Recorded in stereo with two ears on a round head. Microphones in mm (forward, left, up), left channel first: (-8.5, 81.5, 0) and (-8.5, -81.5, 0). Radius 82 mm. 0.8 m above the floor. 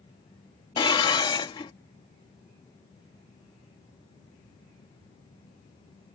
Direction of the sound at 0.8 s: 25° left (ahead or behind).